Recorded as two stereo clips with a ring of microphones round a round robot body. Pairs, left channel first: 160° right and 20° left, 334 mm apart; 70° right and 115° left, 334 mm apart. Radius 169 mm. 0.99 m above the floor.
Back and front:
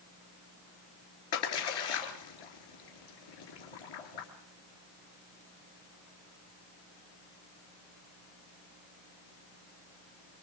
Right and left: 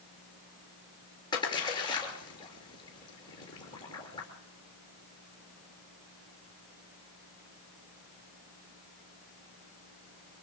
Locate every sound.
1.3 s a splash: 145° right, 4 m